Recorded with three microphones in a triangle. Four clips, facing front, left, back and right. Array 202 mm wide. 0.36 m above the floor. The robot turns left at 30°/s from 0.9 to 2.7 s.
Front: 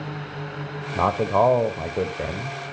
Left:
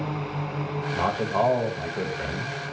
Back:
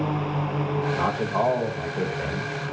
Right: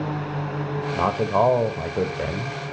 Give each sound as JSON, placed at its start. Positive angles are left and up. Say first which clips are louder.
{"t": 0.9, "sound": "a man speaking", "louder": "right 4 dB, front 8 dB", "azimuth_deg": -20, "distance_m": 1.1}